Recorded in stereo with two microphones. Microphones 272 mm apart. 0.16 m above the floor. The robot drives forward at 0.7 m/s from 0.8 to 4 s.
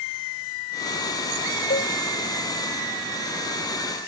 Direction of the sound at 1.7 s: 40° left (ahead or behind).